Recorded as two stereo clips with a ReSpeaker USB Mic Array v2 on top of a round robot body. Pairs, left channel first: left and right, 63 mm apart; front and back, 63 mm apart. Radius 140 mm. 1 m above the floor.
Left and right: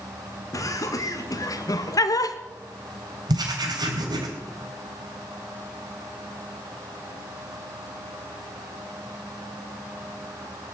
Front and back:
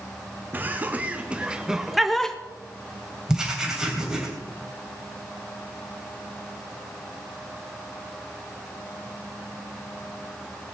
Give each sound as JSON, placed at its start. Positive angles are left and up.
{"t": 0.5, "sound": "laughter", "azimuth_deg": 115, "distance_m": 3.0}
{"t": 3.3, "sound": "writing", "azimuth_deg": -100, "distance_m": 3.5}